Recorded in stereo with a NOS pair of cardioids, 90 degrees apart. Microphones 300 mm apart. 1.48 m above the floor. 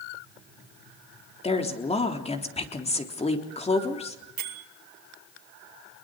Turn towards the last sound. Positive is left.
turn(degrees=-60)